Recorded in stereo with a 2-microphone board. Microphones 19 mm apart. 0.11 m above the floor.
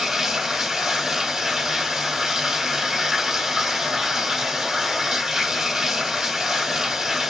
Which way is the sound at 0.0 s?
30° right (ahead or behind).